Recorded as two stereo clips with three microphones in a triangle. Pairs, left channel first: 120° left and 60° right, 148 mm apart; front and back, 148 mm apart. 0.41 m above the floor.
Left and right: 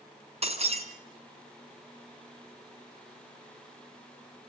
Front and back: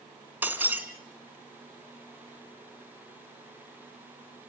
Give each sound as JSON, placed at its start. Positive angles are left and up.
{"t": 0.4, "sound": "breaking glass", "azimuth_deg": -100, "distance_m": 3.0}